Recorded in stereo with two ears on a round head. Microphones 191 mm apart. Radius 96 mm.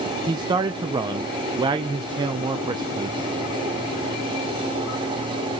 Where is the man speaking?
20° right (ahead or behind), 0.7 m.